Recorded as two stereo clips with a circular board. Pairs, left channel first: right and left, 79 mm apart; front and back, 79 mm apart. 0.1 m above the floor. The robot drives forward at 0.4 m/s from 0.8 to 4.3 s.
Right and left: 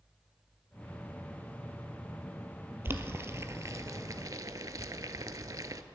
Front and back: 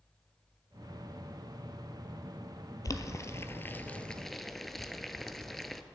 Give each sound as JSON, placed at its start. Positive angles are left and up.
{"t": 2.9, "sound": "boiling", "azimuth_deg": 35, "distance_m": 0.8}